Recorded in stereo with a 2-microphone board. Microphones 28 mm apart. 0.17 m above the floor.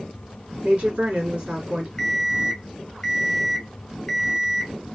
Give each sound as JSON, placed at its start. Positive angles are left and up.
{"t": 0.6, "sound": "a woman speaking", "side_deg": -40, "distance_m": 1.6}
{"t": 2.0, "sound": "an alarm clock", "side_deg": 15, "distance_m": 0.5}